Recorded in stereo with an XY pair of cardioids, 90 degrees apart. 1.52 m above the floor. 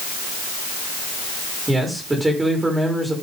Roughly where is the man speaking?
Ahead.